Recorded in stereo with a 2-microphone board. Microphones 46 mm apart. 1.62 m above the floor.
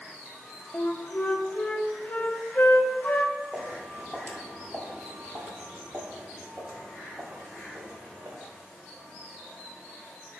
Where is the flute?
40° left (ahead or behind), 0.6 m.